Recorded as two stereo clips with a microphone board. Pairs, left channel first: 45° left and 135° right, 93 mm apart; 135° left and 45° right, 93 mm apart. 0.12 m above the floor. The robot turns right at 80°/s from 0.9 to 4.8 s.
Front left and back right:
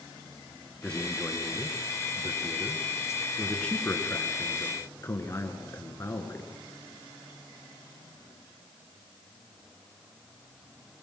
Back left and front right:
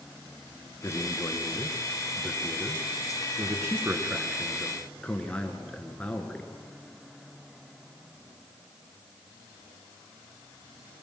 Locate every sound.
0.8 s a man speaking: 120° left, 1.8 m; by 6.5 s 70° left, 1.8 m